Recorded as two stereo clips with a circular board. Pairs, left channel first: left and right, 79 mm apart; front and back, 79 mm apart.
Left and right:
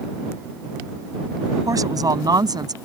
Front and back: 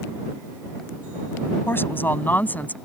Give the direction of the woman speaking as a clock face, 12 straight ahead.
2 o'clock.